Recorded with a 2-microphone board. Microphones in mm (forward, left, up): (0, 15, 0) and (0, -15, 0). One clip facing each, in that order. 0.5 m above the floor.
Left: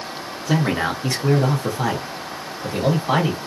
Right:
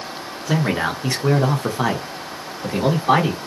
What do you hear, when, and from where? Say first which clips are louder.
0.5 s a man speaking: even; centre (ahead or behind), 0.9 m; by 3.4 s 40° right (ahead or behind), 1.4 m